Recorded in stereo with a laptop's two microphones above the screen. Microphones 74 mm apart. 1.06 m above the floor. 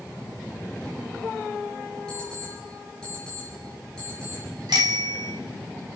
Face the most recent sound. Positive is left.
turn(degrees=-75)  # may be behind; listen again after turning